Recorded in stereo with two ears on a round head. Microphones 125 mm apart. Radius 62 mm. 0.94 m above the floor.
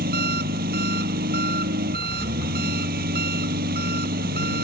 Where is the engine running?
70° right (ahead or behind).